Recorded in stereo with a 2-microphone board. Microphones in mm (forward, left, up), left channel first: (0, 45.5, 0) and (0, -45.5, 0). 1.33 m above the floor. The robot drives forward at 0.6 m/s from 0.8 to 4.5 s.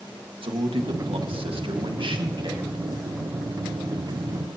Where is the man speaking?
85° right, 1.7 m; by 2.8 s 55° right (ahead or behind), 2.0 m.